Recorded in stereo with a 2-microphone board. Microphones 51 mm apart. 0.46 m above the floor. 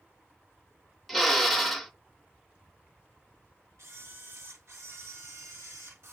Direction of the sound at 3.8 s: 70° right (ahead or behind).